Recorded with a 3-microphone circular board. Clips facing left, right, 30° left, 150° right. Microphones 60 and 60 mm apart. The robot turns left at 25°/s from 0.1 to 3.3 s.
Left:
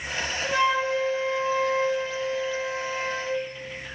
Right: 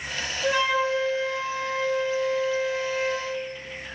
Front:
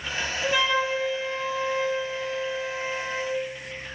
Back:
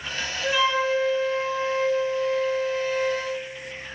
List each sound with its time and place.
0.4 s a flute: 60° right, 4 m; by 3.3 s 135° right, 4 m